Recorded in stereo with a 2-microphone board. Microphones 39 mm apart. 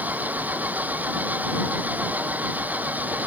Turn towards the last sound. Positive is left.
turn(degrees=-50)  # may be behind; listen again after turning